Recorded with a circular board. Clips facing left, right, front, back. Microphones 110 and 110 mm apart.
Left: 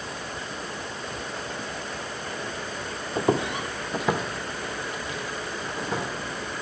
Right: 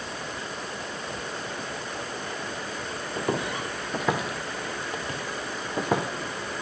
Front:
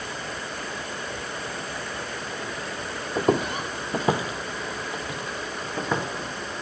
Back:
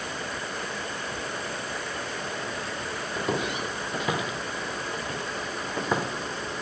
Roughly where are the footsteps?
Ahead left.